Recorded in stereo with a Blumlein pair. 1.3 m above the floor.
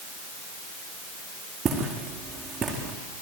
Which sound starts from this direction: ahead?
Footsteps, at 1.6 s.